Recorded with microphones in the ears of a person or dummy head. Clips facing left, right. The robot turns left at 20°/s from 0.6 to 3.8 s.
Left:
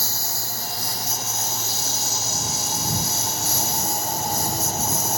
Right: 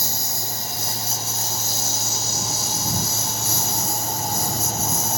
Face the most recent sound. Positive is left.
turn(degrees=-85)